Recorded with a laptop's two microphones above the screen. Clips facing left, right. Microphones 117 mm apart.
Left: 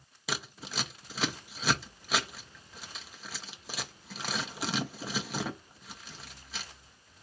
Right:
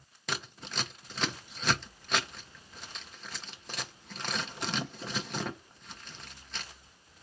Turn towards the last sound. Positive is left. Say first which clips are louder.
# left 1 dB
turn(degrees=5)  # may be behind; listen again after turning